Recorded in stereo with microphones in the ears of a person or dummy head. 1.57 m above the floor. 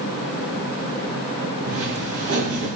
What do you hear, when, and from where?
1.7 s footsteps: 55° right (ahead or behind), 3.5 m